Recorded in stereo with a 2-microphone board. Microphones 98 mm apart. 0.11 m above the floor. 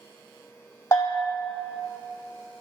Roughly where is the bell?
Left.